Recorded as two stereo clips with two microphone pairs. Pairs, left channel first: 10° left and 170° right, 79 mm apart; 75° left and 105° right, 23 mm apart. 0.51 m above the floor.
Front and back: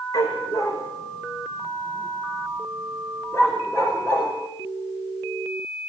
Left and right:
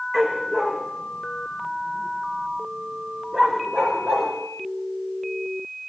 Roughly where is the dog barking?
Ahead right.